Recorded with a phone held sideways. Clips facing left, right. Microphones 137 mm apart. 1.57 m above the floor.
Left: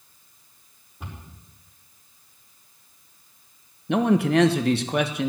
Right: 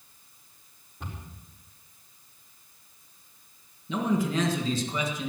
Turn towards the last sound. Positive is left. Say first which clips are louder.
# left 7 dB
turn(degrees=70)  # may be behind; listen again after turning